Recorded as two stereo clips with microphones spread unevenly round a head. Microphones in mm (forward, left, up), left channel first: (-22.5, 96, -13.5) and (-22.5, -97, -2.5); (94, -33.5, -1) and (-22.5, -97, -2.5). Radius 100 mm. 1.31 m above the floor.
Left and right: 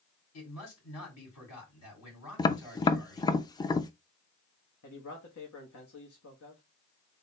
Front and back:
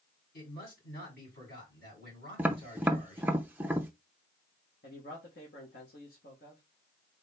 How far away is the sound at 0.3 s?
About 3.5 m.